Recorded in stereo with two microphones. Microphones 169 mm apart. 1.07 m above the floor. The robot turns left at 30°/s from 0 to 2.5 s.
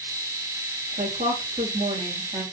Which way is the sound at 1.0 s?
115° right.